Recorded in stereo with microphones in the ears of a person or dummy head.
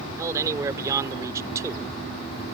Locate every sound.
0.2 s a man speaking: 15° right (ahead or behind)